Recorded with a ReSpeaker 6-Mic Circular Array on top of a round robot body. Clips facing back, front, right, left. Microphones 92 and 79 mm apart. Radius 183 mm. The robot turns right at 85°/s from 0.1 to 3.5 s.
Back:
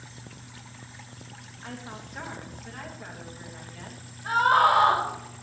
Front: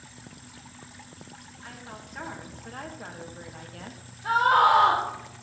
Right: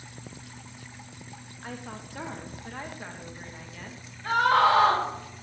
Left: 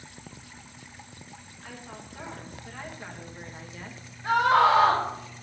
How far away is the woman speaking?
About 2 m.